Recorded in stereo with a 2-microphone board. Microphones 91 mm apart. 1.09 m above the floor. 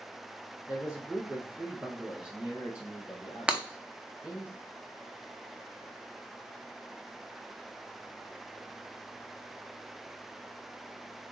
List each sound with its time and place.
0.7 s a man speaking: 15° right (ahead or behind), 2.5 m
3.5 s breaking glass: 10° right (ahead or behind), 0.7 m